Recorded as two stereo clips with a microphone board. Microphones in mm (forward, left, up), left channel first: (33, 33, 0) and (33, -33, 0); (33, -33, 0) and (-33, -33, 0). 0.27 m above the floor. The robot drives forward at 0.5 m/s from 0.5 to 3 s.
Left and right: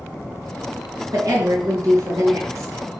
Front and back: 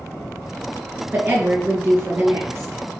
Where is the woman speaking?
120° right, 3.5 m; by 2.8 s 130° right, 4 m.